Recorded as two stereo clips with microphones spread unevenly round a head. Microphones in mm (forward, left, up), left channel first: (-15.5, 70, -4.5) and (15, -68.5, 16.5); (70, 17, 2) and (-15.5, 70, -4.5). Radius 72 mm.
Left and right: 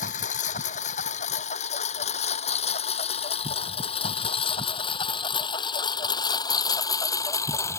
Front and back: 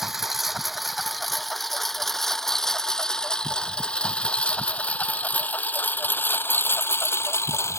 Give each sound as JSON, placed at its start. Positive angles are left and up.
{"t": 0.0, "sound": "a lawn mower", "azimuth_deg": 60}